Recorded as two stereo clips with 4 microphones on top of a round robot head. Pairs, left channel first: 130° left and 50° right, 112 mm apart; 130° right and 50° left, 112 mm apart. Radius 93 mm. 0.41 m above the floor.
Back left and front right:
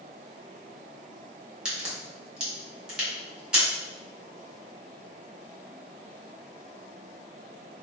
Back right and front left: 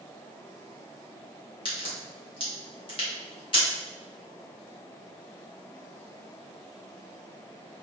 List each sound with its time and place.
1.6 s a crack: 130° right, 1.9 m